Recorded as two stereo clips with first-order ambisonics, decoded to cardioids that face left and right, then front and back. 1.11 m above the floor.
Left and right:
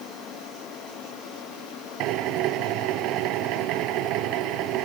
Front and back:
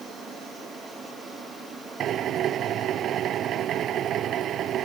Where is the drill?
125° right.